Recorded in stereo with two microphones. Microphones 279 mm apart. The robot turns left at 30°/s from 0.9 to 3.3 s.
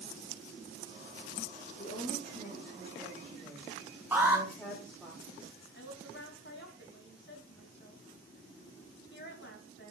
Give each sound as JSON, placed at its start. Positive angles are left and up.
{"t": 1.8, "sound": "a woman speaking", "azimuth_deg": 50, "distance_m": 3.5}
{"t": 4.1, "sound": "an alarm", "side_deg": -5, "distance_m": 5.0}
{"t": 5.7, "sound": "a woman speaking", "side_deg": 40, "distance_m": 4.5}